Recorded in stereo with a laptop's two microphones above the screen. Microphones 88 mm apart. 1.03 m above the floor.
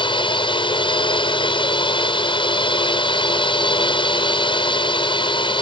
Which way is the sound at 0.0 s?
65° left (ahead or behind).